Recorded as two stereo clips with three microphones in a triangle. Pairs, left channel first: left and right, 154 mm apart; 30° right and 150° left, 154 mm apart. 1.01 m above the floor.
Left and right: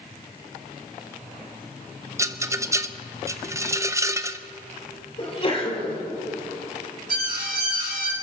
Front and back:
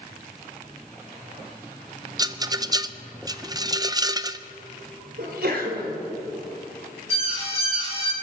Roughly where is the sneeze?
Behind left.